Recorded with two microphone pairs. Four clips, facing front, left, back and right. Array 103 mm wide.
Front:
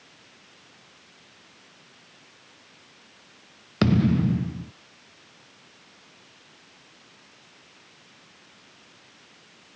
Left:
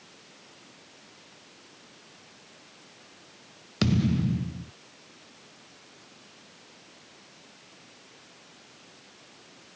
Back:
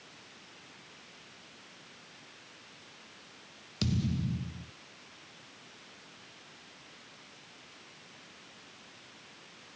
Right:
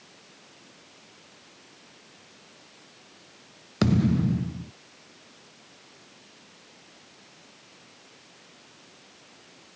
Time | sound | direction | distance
3.8 | a thud | 25° right | ?